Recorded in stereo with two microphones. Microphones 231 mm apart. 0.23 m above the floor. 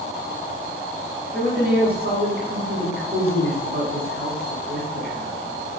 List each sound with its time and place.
1.3 s a man speaking: 50° right (ahead or behind), 1.7 m